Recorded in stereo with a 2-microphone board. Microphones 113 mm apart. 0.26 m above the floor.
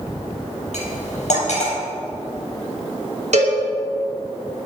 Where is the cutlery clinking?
70° left (ahead or behind), 4.5 m.